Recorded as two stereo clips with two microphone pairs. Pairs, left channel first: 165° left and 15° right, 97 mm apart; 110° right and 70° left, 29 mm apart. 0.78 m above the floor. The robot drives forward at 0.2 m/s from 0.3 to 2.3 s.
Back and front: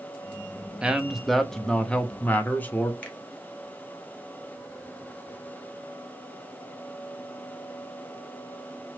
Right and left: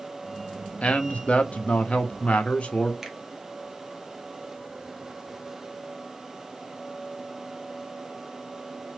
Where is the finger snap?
125° left, 0.7 m.